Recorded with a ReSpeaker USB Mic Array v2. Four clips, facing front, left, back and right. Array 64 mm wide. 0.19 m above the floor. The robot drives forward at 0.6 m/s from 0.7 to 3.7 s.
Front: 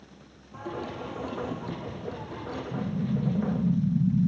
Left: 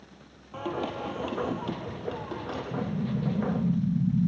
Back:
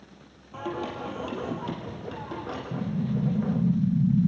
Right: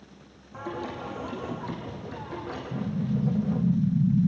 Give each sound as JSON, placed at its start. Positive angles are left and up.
{"t": 0.5, "sound": "singing", "azimuth_deg": 120, "distance_m": 3.0}
{"t": 2.7, "sound": "an explosion", "azimuth_deg": -170, "distance_m": 3.5}